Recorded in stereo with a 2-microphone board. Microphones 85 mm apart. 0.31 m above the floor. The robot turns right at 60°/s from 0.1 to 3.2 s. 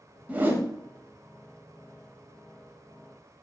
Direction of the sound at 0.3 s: 15° right (ahead or behind).